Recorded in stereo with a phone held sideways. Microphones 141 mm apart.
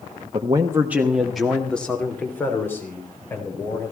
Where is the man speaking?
35° right (ahead or behind), 1.0 m; by 3.9 s 20° left (ahead or behind), 4.5 m.